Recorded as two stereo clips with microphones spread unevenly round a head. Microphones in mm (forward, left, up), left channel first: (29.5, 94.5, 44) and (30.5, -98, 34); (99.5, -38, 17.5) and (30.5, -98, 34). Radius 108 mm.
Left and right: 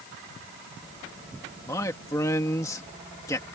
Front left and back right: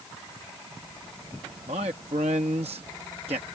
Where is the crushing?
I don't hear crushing.